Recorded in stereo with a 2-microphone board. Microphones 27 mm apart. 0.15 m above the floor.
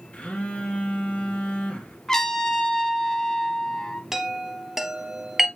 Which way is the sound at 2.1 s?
15° left (ahead or behind).